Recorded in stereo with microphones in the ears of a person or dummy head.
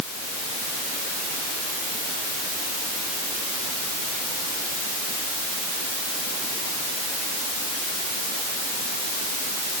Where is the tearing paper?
I don't hear tearing paper.